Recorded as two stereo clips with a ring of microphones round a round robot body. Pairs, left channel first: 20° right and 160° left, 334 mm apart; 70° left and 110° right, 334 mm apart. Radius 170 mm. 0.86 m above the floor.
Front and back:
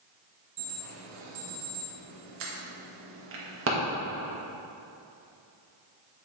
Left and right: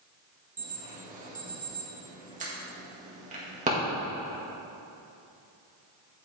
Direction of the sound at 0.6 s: 170° right.